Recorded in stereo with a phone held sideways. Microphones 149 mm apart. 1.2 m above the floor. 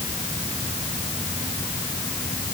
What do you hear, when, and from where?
Only background noise.